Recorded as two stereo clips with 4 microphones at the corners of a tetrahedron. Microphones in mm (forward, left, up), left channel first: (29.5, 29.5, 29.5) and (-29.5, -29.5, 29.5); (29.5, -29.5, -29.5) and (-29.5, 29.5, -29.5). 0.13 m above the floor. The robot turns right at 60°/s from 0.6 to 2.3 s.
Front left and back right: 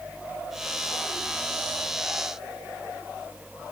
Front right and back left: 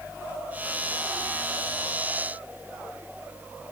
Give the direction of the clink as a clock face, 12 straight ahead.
I don't hear a clink.